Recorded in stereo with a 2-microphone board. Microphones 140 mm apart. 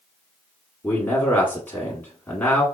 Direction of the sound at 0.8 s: 15° left (ahead or behind).